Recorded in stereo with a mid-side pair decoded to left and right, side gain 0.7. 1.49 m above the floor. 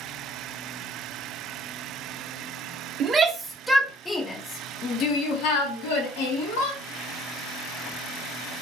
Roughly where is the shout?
Ahead right.